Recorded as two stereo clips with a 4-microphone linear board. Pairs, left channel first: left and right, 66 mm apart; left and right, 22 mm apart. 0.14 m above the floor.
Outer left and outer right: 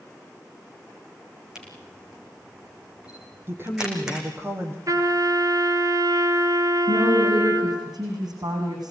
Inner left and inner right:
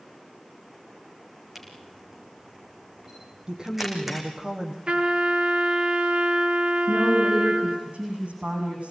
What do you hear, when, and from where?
1.6 s a camera shutter: 10° right (ahead or behind), 5.5 m
3.5 s a woman speaking: 35° right (ahead or behind), 4.5 m
4.9 s a trumpet: 60° right (ahead or behind), 3 m
6.9 s a woman speaking: 75° right (ahead or behind), 7.5 m